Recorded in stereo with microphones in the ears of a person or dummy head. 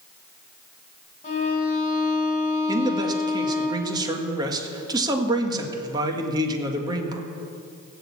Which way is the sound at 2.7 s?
30° right (ahead or behind).